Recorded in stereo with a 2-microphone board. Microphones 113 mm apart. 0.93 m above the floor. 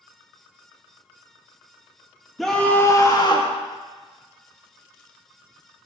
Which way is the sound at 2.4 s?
Centre (ahead or behind).